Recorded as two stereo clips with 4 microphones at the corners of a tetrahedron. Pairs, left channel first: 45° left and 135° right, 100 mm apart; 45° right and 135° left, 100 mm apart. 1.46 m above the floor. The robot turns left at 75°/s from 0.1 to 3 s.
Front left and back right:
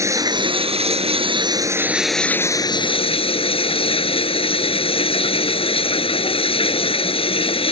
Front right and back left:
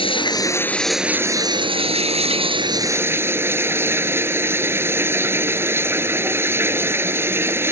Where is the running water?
75° right; by 7.7 s 65° left.